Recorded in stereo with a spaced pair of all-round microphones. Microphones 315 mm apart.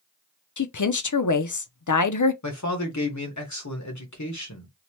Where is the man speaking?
60° left (ahead or behind), 1.1 m.